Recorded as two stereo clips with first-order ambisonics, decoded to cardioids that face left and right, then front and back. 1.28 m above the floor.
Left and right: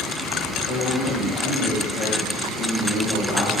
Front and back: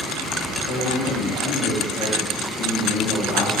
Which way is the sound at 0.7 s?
45° left.